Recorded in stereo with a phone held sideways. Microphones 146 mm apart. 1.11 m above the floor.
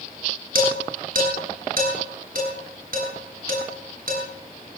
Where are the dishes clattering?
80° right, 7.5 m.